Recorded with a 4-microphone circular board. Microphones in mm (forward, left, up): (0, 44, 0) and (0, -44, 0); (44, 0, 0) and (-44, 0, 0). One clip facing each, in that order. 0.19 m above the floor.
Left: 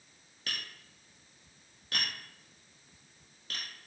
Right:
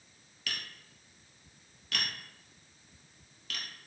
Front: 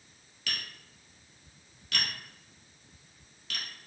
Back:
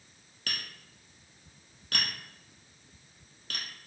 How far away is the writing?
No writing in this recording.